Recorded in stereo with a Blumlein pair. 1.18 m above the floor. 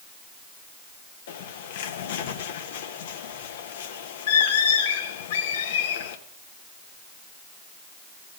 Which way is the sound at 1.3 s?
55° left.